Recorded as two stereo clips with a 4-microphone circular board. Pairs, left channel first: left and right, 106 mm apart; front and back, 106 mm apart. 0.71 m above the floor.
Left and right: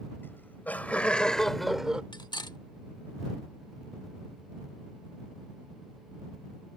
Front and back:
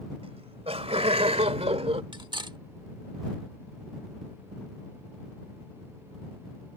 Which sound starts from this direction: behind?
Laughter, at 0.2 s.